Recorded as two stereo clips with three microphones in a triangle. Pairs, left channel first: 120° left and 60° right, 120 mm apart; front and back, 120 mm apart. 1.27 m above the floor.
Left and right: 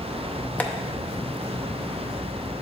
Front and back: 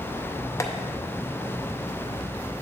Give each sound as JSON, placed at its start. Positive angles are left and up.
{"t": 0.6, "sound": "tapping", "azimuth_deg": 50, "distance_m": 0.7}